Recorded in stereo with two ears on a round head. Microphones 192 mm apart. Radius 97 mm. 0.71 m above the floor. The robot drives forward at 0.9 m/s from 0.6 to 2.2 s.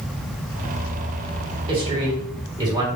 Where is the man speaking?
25° right (ahead or behind), 2 m; by 2.9 s 20° right (ahead or behind), 2.5 m.